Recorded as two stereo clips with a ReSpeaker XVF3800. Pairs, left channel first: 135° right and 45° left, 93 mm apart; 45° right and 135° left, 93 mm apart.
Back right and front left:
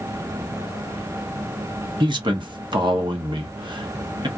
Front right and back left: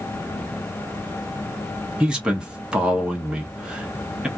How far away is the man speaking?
About 1.1 m.